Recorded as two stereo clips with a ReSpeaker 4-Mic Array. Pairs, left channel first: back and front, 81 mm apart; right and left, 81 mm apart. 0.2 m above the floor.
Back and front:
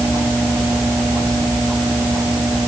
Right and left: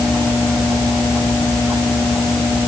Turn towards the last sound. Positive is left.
No sound to turn to.